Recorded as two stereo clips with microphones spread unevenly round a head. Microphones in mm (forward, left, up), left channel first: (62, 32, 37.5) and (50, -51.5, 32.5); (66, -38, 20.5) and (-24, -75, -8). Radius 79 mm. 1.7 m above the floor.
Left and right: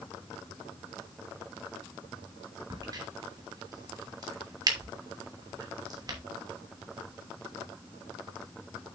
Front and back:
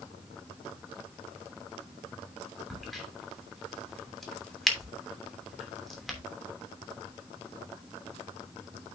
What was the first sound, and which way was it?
A crack, 60° right.